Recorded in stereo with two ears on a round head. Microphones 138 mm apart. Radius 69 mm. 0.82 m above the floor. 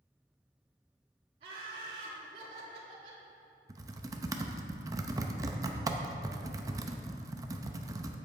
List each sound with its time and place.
1.4 s laughter: 45° right (ahead or behind), 2.0 m
3.7 s typing on a keyboard: 25° right (ahead or behind), 0.6 m